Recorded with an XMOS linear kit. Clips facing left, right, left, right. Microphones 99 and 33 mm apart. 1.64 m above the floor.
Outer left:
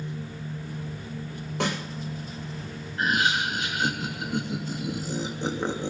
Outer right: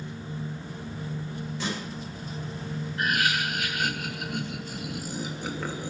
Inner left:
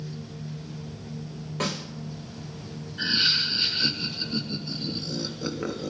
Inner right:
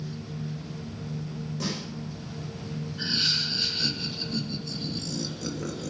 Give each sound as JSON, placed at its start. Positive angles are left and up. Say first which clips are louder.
{"t": 1.6, "sound": "a snare drum", "louder": "outer left 6 dB, inner left 4 dB", "side_deg": 55, "distance_m": 7.5}
{"t": 3.0, "sound": "laughter", "louder": "outer left 3 dB, inner left 4 dB", "side_deg": 25, "distance_m": 2.5}